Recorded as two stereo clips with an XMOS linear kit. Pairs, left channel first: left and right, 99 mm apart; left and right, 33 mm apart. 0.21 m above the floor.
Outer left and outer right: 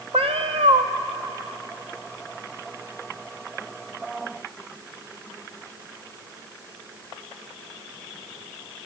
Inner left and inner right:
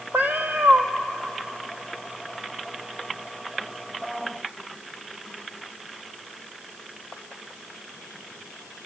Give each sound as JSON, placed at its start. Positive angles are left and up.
{"t": 0.1, "sound": "a cat meowing", "side_deg": -80, "distance_m": 0.5}